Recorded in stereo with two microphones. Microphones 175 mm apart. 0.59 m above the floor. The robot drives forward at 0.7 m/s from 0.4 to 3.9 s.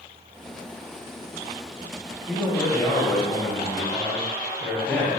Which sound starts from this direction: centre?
A man speaking, at 2.3 s.